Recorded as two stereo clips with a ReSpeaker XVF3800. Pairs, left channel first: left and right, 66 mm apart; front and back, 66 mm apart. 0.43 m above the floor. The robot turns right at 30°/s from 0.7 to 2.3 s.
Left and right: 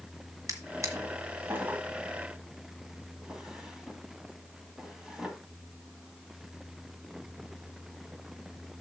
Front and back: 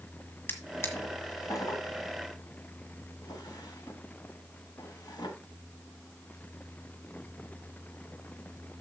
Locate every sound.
0.5 s a drawer: 55° right, 1.7 m; by 5.3 s 5° right, 1.7 m